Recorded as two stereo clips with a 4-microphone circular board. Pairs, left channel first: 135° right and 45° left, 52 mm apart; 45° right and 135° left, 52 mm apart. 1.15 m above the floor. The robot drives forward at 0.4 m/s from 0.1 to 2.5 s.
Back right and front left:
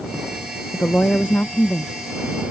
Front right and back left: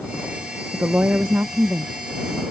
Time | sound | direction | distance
0.7 | a woman speaking | 175° left | ?